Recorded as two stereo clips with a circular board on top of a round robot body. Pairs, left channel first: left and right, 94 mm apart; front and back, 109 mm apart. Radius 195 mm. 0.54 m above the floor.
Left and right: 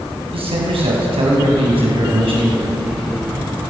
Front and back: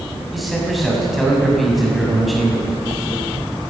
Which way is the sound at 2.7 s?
25° left.